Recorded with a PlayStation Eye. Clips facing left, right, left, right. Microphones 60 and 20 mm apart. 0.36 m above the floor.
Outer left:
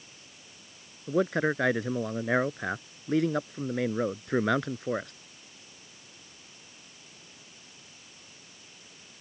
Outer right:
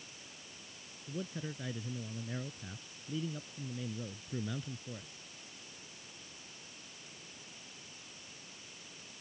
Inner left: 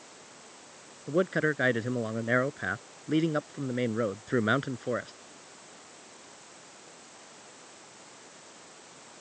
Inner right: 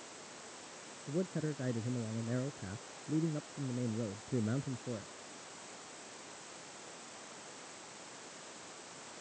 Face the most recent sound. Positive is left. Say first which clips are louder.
# outer left 16 dB, inner left 11 dB
turn(degrees=75)  # may be behind; listen again after turning